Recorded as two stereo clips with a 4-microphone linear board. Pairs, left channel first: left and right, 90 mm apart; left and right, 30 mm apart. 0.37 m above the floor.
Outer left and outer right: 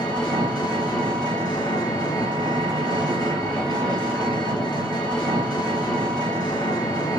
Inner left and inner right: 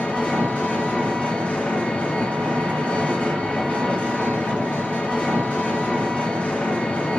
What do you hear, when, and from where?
0.0 s an engine running: 55° left (ahead or behind), 1.3 m